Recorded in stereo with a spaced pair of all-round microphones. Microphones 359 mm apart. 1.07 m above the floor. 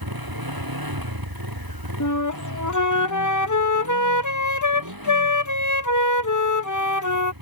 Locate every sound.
0.0 s a motorcycle: 75° right (ahead or behind); by 7.4 s 70° right (ahead or behind)
2.0 s a flute: 55° left (ahead or behind)